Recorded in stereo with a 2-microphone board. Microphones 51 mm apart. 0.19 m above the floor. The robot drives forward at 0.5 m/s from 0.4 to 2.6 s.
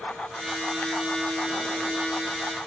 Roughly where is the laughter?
I don't hear laughter.